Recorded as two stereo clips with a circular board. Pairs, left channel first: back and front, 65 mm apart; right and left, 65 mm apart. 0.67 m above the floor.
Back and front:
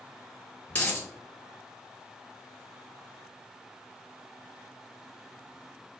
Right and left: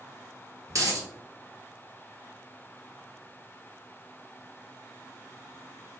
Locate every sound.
0.7 s a dropped coin: 120° left, 1.6 m